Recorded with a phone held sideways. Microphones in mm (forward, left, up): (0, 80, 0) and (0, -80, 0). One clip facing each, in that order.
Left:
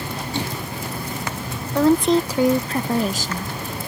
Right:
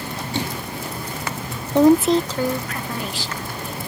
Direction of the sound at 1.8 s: 20° right (ahead or behind).